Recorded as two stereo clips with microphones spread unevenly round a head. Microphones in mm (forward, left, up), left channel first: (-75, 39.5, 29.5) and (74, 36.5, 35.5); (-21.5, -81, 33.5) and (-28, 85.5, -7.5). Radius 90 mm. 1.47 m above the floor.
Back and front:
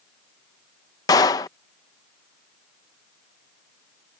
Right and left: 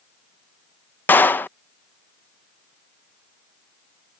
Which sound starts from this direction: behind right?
A clap, at 1.1 s.